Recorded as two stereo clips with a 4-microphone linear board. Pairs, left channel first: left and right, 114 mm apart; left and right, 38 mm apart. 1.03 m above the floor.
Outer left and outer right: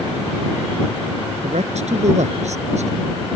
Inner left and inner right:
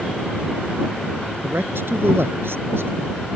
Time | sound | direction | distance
1.4 | a man speaking | 75° right (ahead or behind) | ?